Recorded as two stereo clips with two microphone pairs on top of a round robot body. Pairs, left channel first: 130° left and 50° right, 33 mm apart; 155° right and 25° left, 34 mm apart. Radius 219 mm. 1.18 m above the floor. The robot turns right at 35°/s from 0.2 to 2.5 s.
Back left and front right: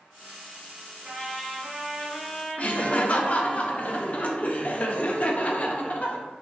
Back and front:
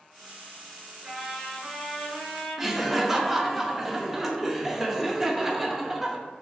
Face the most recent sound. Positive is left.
turn(degrees=105)